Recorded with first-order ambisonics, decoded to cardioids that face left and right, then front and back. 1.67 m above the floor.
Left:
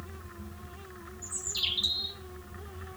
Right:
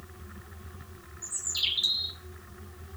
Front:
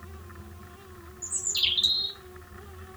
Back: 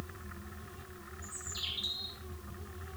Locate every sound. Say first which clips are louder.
1.2 s a bird: right 2 dB, front 13 dB; 10° right, 0.6 m